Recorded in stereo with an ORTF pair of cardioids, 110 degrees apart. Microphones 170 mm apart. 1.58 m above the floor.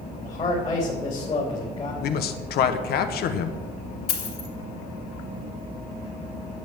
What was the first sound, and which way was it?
A man speaking, 35° left.